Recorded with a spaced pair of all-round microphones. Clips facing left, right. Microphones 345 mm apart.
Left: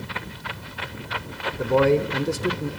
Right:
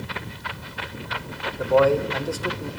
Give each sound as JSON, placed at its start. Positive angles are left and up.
{"t": 1.6, "sound": "a man speaking", "side_deg": 35, "distance_m": 0.6}